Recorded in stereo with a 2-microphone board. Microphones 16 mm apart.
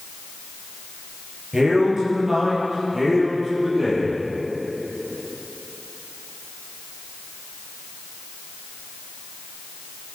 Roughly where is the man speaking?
Right.